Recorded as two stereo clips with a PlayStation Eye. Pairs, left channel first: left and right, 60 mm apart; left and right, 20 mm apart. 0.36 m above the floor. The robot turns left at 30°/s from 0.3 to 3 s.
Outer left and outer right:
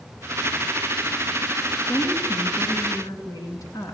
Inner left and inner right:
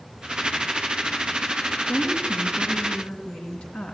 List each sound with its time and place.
1.9 s a woman speaking: 135° left, 4.5 m; by 4.0 s 105° left, 4.5 m